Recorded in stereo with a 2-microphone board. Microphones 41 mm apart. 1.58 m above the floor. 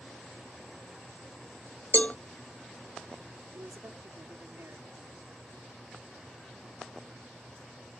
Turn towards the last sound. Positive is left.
turn(degrees=-80)